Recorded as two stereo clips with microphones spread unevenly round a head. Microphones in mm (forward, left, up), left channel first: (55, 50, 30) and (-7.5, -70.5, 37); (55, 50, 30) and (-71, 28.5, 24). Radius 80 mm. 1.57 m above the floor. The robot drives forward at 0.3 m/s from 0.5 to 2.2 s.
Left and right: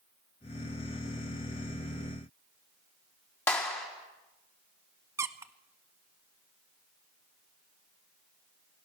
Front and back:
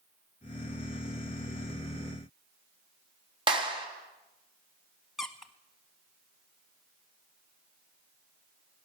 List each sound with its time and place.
3.5 s a clap: 135° left, 3 m
5.2 s a squeak: 75° right, 0.8 m